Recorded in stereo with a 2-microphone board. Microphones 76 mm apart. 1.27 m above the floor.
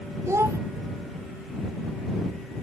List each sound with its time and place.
0.3 s a child speaking: 40° right (ahead or behind)